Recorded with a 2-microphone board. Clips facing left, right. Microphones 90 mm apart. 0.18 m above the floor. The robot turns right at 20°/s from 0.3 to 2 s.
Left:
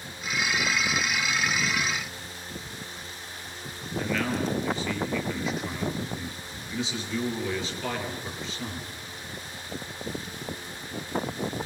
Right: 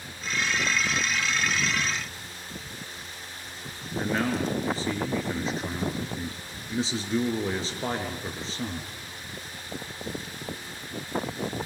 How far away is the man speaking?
About 4 m.